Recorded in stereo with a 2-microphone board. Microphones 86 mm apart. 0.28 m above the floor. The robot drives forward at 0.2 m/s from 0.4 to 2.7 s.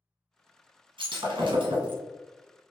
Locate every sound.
1.0 s breaking glass: 80° right, 1.2 m; by 2.0 s 75° right (ahead or behind), 1.2 m